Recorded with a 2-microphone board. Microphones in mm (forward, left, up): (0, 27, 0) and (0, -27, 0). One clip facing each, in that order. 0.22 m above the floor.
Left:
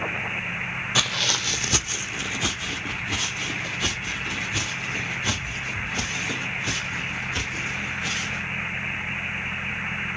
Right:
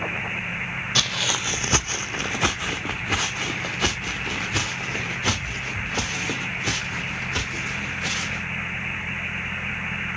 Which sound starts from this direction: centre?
Footsteps, at 0.9 s.